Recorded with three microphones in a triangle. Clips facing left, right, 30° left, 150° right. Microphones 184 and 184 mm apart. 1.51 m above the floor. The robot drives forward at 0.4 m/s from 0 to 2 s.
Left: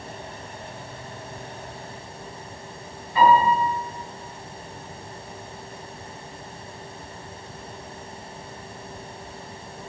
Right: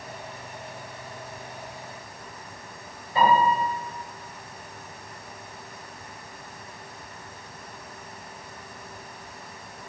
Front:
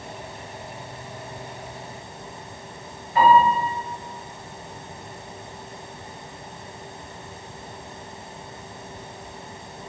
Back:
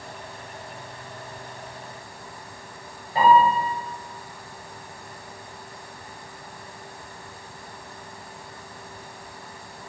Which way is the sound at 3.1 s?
125° right.